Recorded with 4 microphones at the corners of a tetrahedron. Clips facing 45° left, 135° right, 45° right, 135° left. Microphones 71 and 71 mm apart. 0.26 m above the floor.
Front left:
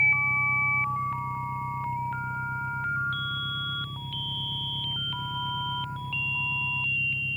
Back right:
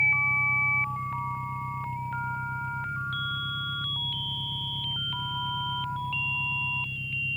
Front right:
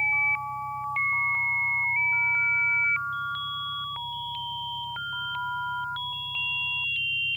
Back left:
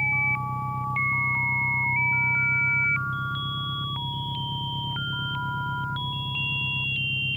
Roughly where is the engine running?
Behind left.